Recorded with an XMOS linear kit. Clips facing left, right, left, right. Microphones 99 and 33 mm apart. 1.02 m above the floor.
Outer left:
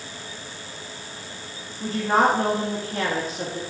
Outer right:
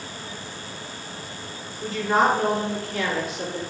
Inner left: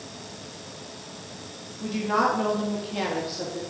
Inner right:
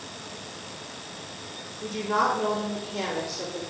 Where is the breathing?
I don't hear breathing.